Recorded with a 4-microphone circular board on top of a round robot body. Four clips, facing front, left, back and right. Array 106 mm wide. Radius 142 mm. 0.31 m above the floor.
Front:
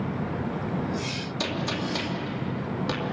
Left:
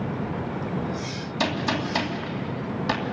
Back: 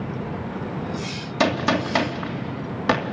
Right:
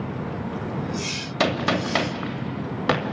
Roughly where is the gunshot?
Behind right.